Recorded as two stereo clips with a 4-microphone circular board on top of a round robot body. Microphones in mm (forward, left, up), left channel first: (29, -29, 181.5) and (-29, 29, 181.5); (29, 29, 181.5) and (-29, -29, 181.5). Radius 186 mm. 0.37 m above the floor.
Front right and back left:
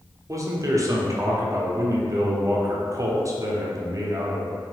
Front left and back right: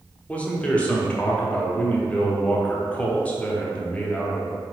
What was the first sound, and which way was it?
A man speaking, 115° left.